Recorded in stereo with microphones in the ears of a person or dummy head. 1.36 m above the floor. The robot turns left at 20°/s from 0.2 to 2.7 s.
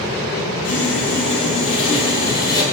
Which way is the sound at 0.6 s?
65° left.